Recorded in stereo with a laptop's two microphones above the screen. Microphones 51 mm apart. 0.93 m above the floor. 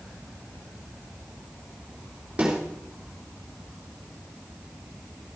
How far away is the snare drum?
About 3.5 m.